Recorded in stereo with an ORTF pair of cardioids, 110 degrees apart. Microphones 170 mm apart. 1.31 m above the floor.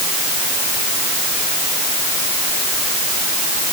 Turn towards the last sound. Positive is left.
No sound to turn to.